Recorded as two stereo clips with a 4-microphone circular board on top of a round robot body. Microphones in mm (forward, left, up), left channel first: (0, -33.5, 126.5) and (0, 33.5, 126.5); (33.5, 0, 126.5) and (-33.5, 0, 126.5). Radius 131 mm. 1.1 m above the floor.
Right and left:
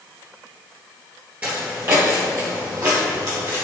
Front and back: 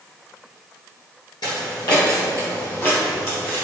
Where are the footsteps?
20° left, 1.3 m; by 3.6 s 50° left, 3.5 m.